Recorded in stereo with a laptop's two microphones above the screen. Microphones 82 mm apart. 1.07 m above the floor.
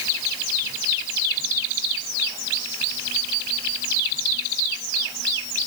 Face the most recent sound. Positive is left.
No sound to turn to.